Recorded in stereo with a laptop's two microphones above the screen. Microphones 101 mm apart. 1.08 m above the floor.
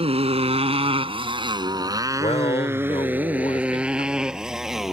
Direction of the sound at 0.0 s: 75° right (ahead or behind).